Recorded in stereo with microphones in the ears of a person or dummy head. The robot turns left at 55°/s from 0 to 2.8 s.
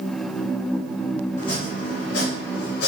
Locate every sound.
1.4 s chopping: 145° left, 1.0 m; by 2.9 s 65° left, 1.0 m